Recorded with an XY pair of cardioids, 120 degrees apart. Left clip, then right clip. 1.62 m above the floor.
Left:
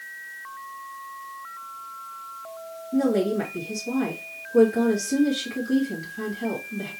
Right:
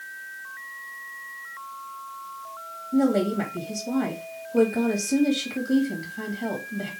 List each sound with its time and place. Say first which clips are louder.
2.9 s a woman speaking: even; 10° right, 2.5 m